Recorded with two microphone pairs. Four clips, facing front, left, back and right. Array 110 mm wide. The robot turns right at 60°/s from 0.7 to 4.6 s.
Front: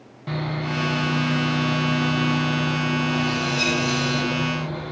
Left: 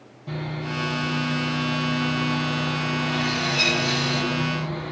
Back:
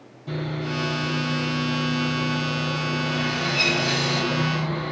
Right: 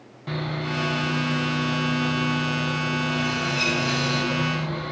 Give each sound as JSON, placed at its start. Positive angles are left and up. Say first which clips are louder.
{"t": 0.3, "sound": "sawing", "louder": "right 2 dB, front 1 dB", "azimuth_deg": -45, "distance_m": 0.7}